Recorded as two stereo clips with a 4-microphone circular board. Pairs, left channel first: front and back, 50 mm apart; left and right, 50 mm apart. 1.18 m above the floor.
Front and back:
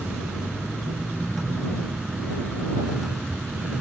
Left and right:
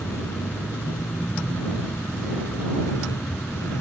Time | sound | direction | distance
0.0 | a vehicle | 105° left | ?